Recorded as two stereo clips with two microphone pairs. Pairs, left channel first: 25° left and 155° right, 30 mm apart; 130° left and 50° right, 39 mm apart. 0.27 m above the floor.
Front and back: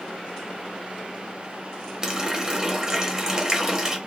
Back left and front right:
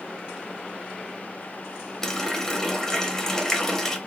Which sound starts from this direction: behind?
A running tap, at 2.0 s.